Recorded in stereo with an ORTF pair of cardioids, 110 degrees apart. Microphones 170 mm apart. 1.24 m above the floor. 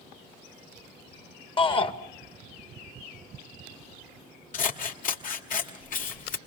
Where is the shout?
30° left, 1.7 m.